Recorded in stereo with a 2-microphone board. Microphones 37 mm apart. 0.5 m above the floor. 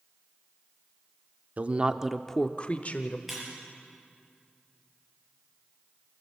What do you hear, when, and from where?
1.6 s a woman speaking: 45° right (ahead or behind), 1.0 m; by 3.2 s 50° left (ahead or behind), 1.6 m
3.3 s breaking glass: 5° right (ahead or behind), 7.5 m